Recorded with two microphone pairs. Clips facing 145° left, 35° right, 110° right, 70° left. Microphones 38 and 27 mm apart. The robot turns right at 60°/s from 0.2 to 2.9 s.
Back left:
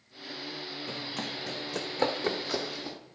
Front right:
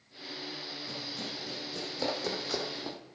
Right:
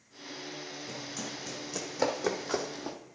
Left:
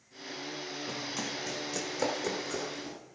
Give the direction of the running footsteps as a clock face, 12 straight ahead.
8 o'clock.